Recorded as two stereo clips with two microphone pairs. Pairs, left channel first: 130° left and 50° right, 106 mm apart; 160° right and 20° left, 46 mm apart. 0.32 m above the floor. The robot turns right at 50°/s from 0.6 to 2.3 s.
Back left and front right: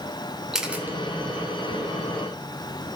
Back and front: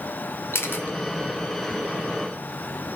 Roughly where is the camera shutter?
Behind right.